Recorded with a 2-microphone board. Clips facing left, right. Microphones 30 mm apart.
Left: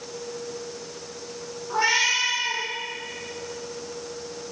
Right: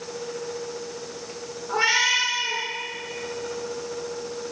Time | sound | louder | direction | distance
1.7 | a cat meowing | right 1 dB | 75° right (ahead or behind) | 2.5 m